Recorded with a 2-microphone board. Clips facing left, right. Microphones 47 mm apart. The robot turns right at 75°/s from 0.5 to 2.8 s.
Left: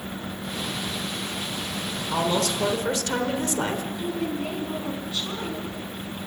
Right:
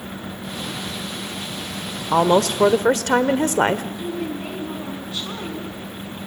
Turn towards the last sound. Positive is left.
turn(degrees=-10)  # may be behind; listen again after turning